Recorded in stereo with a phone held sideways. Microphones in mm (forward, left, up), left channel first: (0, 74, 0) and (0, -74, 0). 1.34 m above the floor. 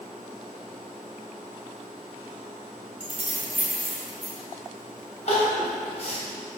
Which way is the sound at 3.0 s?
55° right (ahead or behind).